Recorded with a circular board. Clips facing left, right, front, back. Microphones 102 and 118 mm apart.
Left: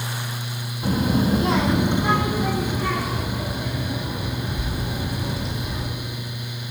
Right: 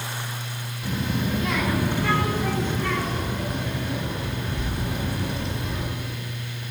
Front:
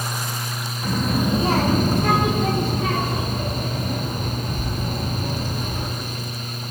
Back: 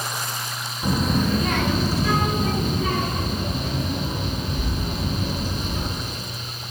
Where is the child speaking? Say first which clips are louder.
Left 7 dB, even; 115° left, 0.7 m; by 5.9 s straight ahead, 4.5 m.